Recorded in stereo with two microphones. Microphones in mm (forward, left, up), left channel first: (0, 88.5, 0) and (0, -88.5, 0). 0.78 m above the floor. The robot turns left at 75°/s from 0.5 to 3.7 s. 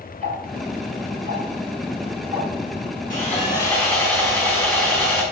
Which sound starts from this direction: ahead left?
Sawing, at 3.1 s.